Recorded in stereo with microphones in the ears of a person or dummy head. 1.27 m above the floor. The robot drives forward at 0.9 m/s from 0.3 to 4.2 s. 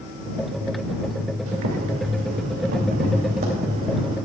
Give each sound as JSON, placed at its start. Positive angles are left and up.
{"t": 1.5, "sound": "boiling", "side_deg": -80, "distance_m": 2.0}